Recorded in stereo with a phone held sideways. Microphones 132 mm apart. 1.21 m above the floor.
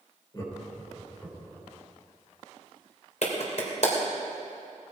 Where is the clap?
60° left (ahead or behind), 3 m.